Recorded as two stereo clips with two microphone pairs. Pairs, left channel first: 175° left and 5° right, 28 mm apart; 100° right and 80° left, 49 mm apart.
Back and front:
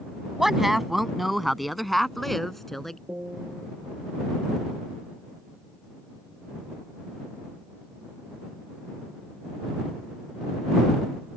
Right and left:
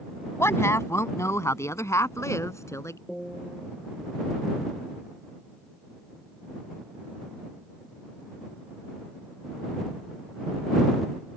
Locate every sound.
0.4 s a woman speaking: 80° right; by 3.0 s 105° right
3.1 s a piano: 10° right